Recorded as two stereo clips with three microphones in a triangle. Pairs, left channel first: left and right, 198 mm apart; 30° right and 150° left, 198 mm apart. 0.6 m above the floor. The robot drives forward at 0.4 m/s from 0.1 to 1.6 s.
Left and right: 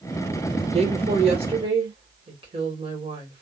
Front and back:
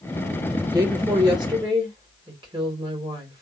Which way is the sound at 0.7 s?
140° right.